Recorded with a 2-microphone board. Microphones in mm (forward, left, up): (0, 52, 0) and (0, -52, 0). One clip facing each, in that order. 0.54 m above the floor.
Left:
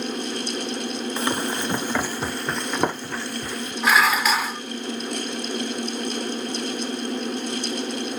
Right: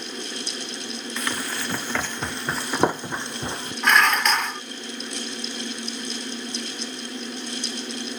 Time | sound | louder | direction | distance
1.2 | running footsteps | left 4 dB | 30° left (ahead or behind) | ?
3.8 | dishes clattering | even | 5° left (ahead or behind) | ?